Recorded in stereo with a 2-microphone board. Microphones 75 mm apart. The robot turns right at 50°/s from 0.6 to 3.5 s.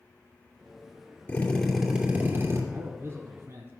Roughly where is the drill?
Behind.